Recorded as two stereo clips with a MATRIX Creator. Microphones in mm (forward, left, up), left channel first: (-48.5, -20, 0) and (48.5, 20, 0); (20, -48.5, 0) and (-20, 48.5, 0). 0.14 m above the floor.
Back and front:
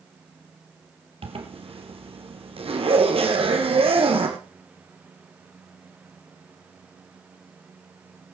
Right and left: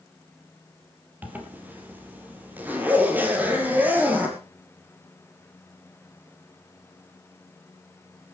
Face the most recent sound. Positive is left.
turn(degrees=40)